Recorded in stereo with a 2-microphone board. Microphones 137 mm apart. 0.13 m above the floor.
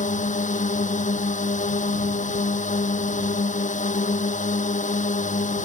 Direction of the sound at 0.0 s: 75° left (ahead or behind).